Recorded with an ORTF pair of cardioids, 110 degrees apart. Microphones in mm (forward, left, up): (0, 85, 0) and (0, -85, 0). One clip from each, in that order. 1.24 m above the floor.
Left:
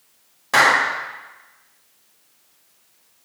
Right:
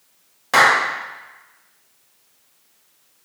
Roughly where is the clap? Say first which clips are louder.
Right 1 dB; ahead.